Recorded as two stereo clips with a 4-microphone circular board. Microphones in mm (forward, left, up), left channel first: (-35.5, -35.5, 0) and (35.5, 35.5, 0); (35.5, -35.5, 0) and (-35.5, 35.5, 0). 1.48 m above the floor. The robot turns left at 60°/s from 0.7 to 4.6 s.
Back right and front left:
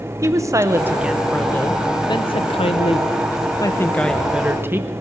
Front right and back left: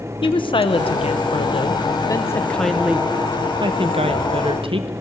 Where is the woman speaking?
15° right, 0.7 m; by 4.9 s 110° left, 0.7 m.